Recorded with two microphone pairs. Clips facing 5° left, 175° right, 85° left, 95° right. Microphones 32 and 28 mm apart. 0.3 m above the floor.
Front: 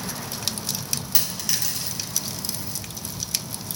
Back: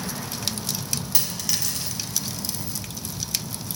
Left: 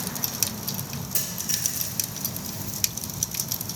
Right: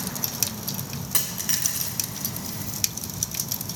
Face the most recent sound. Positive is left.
turn(degrees=-80)